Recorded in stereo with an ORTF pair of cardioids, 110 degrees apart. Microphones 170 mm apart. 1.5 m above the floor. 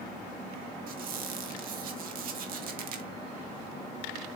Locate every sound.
0.9 s a squeak: 60° right, 2.0 m